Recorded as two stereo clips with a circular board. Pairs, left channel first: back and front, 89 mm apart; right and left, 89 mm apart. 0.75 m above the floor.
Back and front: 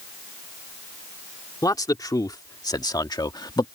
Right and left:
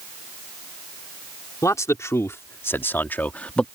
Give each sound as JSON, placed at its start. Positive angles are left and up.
{"t": 1.6, "sound": "a man speaking", "azimuth_deg": -140}